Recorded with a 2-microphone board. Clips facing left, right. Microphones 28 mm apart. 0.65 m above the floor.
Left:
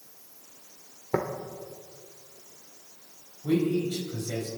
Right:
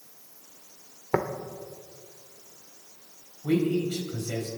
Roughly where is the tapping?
Right.